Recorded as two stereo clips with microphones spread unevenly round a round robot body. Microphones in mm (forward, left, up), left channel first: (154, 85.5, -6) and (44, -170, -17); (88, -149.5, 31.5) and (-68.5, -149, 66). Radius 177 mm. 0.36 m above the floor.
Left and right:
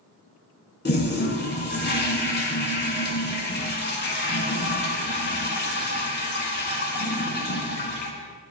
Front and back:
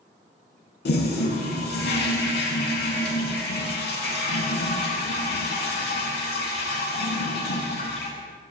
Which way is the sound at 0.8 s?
10° left.